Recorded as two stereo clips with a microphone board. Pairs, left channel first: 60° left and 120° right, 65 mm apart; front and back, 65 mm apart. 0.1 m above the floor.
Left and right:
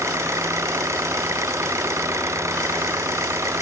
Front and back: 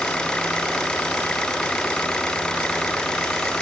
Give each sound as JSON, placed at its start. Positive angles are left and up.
{"t": 0.0, "sound": "an engine running", "azimuth_deg": -80}